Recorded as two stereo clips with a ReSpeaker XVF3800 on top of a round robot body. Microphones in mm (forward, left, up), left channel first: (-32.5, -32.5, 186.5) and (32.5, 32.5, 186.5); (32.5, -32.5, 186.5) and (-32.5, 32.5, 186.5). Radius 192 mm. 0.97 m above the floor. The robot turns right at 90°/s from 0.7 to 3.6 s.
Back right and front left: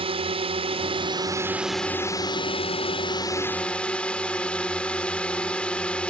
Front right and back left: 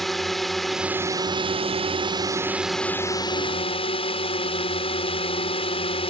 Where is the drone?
45° left; by 6.1 s 55° right.